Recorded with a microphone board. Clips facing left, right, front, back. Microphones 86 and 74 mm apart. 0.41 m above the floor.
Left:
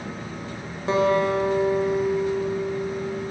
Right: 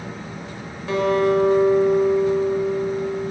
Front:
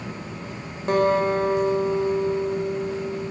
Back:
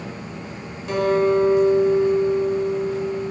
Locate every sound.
0.9 s a guitar: 35° left, 1.1 m